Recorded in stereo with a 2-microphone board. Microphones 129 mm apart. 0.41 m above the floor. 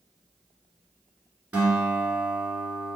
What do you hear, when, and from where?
1.5 s a guitar: 15° right (ahead or behind), 1.6 m